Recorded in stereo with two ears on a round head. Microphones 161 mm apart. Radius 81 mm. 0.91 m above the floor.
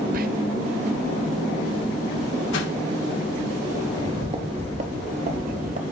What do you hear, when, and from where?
0.1 s whispering: 50° right (ahead or behind), 0.6 m
2.5 s a whoosh: 75° left (ahead or behind), 1.3 m
3.9 s footsteps: 20° right (ahead or behind), 1.0 m; by 5.8 s 50° right (ahead or behind), 1.5 m